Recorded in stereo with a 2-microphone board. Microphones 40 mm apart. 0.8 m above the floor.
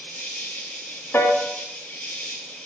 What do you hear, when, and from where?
0.0 s an insect: 50° left (ahead or behind), 8 m
1.1 s a piano: 55° left (ahead or behind), 1.9 m